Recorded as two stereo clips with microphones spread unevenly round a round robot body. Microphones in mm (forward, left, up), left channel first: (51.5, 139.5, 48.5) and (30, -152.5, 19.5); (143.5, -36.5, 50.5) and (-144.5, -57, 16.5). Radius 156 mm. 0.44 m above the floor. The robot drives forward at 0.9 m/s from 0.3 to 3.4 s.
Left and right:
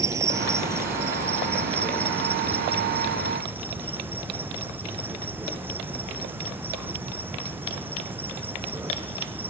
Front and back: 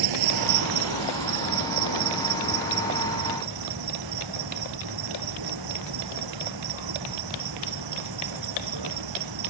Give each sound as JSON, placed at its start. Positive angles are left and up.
{"t": 0.0, "sound": "an insect", "azimuth_deg": -175}